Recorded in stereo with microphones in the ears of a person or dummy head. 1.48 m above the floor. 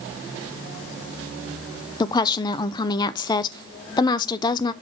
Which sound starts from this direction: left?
A woman speaking, at 2.0 s.